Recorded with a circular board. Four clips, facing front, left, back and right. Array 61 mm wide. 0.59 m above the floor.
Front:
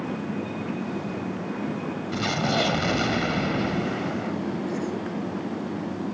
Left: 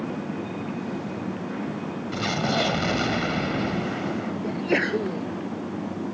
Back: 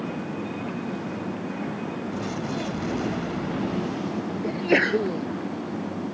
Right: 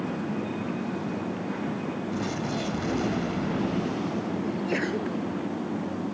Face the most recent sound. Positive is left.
turn(degrees=160)